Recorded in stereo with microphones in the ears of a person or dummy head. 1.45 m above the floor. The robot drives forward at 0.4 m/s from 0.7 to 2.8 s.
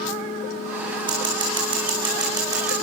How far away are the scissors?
About 5.5 m.